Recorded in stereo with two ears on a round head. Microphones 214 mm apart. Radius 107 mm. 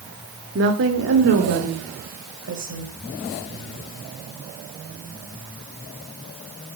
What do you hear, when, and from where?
0.6 s a woman speaking: 50° right (ahead or behind), 1.9 m; by 2.9 s 55° right (ahead or behind), 3.5 m